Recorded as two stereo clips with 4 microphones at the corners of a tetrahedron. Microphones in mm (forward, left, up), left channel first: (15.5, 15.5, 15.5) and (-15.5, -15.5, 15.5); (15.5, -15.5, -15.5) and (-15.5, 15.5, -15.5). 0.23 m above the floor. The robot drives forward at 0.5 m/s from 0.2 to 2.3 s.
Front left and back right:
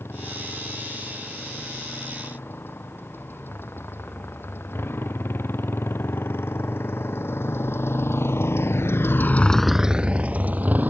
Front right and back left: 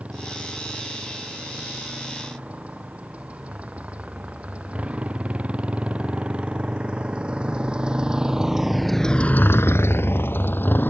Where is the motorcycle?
75° left; by 10.9 s 90° right.